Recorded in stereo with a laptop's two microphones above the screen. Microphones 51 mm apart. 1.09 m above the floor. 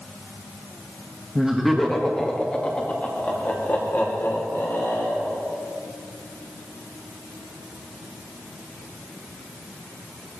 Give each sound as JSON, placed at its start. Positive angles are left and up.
{"t": 1.4, "sound": "laughter", "side_deg": -15, "distance_m": 1.8}